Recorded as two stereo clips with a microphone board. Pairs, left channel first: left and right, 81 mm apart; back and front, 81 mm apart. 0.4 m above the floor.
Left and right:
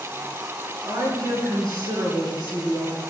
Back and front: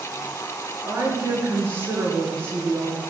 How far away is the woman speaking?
About 5.5 m.